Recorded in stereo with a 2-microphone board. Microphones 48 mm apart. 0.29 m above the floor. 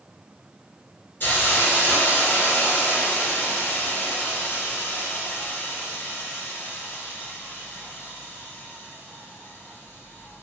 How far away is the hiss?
About 1.1 m.